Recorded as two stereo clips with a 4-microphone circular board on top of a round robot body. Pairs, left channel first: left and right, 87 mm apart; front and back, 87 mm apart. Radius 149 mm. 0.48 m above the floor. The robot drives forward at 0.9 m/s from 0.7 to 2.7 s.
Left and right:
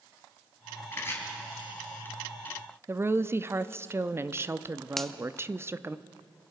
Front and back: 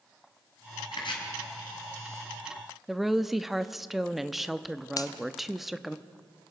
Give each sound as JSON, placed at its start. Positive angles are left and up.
{"t": 0.9, "sound": "chopping", "azimuth_deg": 25, "distance_m": 4.0}
{"t": 2.9, "sound": "a woman speaking", "azimuth_deg": -95, "distance_m": 0.9}
{"t": 5.0, "sound": "a finger snap", "azimuth_deg": 5, "distance_m": 1.2}